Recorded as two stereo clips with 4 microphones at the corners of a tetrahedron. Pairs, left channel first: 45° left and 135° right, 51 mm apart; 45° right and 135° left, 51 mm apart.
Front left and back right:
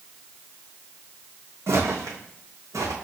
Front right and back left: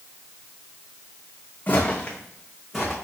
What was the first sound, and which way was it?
Footsteps, 100° right.